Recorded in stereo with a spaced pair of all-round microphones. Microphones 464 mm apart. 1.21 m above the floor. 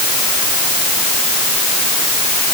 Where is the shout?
No shout in this recording.